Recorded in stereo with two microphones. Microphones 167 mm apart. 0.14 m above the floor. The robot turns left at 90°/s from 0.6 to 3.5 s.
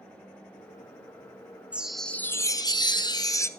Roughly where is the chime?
Centre.